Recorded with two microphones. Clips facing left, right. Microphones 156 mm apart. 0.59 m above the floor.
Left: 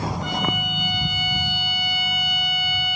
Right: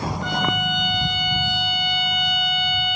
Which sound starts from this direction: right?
A violin, at 0.2 s.